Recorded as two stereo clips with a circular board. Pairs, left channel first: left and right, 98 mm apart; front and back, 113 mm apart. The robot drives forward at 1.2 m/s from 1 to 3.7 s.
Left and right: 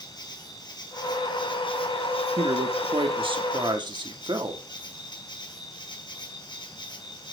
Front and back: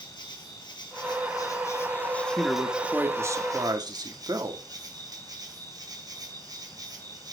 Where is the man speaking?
85° right, 1.9 m; by 4.6 s 125° right, 2.5 m.